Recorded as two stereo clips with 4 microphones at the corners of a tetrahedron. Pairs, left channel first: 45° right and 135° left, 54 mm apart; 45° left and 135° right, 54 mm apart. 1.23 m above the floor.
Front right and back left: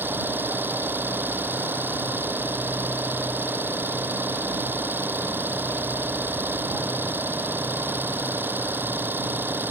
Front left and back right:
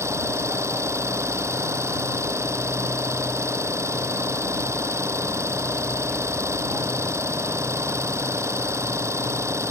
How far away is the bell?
No bell in this recording.